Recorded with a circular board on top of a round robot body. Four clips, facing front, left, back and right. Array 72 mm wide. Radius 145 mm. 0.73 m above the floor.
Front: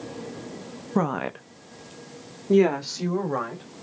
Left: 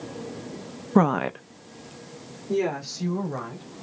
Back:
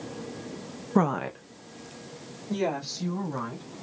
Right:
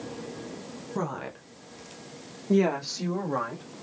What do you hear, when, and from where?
0.9 s a woman speaking: 100° left, 0.7 m; by 3.6 s 25° right, 3 m